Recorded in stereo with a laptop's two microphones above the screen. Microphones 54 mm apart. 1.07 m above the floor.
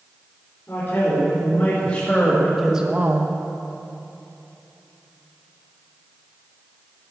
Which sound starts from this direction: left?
A man speaking, at 0.7 s.